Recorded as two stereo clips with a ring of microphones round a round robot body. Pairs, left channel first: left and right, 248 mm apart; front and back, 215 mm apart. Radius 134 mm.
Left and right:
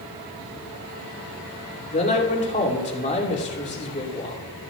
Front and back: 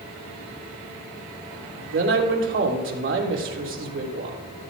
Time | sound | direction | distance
1.9 | a man speaking | 150° left | 2.5 m